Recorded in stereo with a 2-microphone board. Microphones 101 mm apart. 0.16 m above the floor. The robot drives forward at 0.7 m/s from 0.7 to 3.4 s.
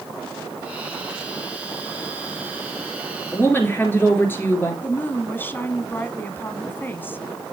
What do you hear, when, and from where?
3.3 s a woman speaking: 20° left (ahead or behind), 2.5 m
4.8 s a woman speaking: 20° left (ahead or behind), 1.3 m